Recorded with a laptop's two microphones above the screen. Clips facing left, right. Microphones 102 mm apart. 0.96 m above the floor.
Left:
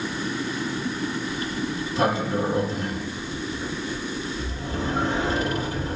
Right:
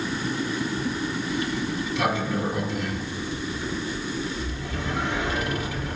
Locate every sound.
1.3 s a sliding door: 35° left (ahead or behind), 3 m